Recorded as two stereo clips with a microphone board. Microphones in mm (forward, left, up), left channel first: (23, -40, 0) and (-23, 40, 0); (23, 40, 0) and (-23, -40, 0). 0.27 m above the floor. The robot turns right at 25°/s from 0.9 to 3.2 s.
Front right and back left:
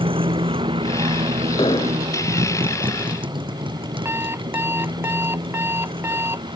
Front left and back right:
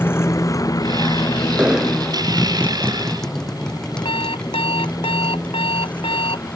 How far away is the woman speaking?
I don't hear a woman speaking.